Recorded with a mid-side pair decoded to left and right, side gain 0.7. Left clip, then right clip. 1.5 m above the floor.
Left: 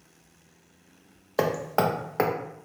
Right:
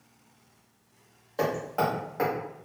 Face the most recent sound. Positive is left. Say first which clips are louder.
# left 3 dB
turn(degrees=45)